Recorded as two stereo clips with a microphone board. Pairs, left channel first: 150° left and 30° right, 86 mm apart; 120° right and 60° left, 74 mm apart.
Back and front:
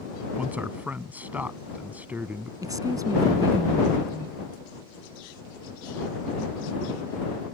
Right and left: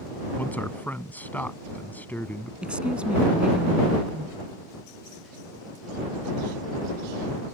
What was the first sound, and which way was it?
A man speaking, 80° right.